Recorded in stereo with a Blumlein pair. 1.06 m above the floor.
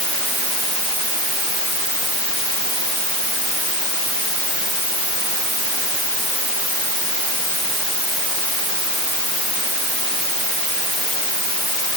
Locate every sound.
Only background noise.